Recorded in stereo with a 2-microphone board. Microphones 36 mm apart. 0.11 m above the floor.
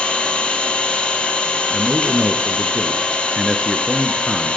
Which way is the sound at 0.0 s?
30° left (ahead or behind).